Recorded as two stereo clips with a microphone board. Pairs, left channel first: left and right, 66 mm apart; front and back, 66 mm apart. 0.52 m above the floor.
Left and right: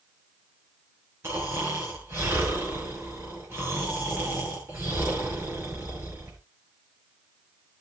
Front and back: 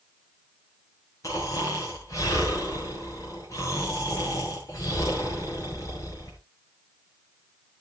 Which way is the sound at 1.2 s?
40° right.